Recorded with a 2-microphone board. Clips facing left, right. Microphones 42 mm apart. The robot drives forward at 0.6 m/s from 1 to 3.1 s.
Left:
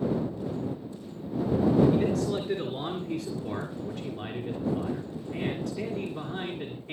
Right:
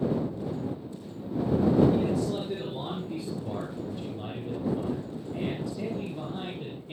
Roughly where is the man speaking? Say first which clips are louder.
Left 1 dB; left.